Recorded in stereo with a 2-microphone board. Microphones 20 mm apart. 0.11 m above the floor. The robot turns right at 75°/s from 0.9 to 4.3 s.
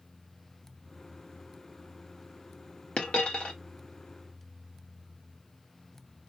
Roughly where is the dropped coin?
Left.